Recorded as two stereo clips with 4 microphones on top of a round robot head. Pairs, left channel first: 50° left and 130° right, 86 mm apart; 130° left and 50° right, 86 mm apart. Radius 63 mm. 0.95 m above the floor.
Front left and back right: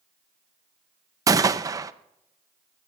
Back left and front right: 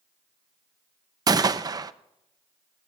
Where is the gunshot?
85° right, 0.6 m.